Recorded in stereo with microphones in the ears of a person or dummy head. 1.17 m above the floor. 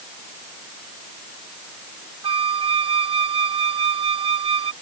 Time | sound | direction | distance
2.2 | a flute | 30° right (ahead or behind) | ?